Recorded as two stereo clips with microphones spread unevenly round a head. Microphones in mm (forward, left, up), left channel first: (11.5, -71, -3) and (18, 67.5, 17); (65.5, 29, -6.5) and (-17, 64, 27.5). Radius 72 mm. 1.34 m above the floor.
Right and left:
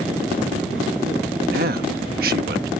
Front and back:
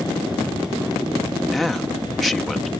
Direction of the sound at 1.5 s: 65° left.